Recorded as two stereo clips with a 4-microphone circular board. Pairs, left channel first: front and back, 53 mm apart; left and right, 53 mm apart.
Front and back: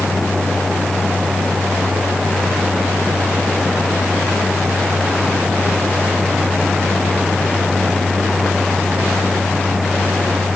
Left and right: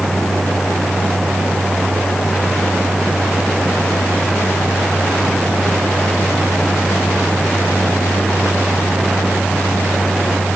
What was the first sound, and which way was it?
Only background noise.